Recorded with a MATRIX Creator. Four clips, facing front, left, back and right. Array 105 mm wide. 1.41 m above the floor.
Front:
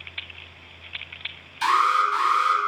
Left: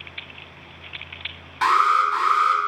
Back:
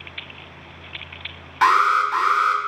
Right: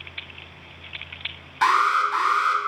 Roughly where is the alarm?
Behind.